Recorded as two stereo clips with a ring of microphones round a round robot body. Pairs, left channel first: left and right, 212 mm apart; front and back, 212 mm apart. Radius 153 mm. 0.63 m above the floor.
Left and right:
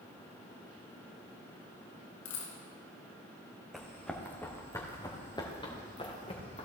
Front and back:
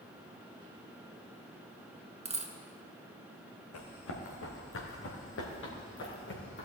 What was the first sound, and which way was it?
A dropped coin, 120° left.